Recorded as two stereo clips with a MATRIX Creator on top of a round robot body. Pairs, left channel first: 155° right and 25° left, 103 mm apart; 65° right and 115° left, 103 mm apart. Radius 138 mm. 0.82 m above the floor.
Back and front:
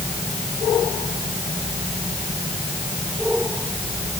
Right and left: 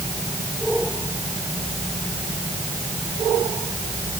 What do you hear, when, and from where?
Only background noise.